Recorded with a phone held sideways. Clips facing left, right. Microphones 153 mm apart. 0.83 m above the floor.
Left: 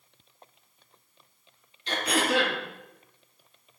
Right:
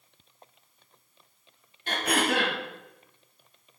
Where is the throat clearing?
55° right (ahead or behind), 1.5 m.